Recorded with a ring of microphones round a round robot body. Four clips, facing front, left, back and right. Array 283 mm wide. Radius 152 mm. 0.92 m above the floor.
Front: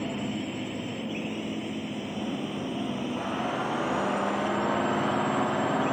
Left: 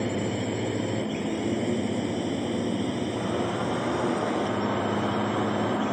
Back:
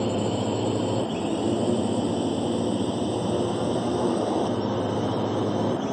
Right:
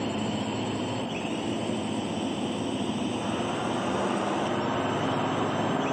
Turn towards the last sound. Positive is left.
turn(degrees=160)